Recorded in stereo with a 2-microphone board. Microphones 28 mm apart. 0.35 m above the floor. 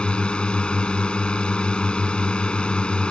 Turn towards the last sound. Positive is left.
turn(degrees=35)  # may be behind; listen again after turning